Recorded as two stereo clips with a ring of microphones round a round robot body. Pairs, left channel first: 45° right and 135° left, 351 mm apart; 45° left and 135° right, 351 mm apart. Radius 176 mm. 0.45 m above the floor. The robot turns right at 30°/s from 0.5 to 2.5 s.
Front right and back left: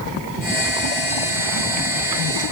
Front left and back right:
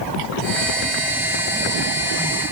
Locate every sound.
Only background noise.